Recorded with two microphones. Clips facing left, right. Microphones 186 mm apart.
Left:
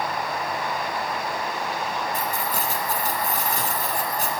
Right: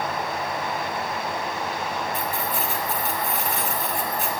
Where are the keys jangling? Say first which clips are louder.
Even; 40° left (ahead or behind), 1.2 m.